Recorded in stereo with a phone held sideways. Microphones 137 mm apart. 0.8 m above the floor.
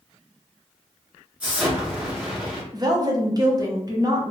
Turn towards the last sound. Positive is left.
turn(degrees=-30)  # may be behind; listen again after turning